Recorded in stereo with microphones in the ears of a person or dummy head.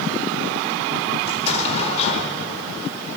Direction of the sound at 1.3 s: 35° left (ahead or behind).